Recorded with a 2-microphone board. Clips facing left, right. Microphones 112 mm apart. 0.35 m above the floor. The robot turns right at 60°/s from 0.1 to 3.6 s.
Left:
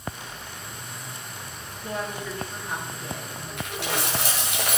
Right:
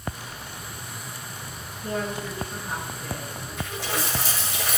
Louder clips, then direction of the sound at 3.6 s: Left 1 dB; 65° left (ahead or behind).